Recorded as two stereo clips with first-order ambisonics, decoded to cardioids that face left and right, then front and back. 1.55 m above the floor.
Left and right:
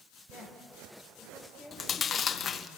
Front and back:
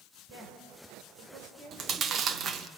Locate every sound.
0.3 s a woman speaking: 175° left, 5 m
1.7 s chewing: 140° left, 0.8 m